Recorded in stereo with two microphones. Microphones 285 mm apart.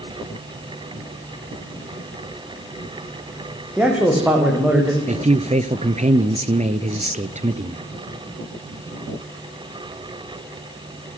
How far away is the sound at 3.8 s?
About 7.5 m.